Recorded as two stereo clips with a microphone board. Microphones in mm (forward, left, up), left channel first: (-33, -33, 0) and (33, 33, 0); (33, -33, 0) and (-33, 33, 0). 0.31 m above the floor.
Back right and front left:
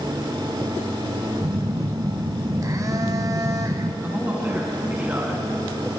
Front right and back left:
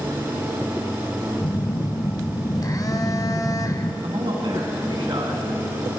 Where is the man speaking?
115° left, 3.5 m.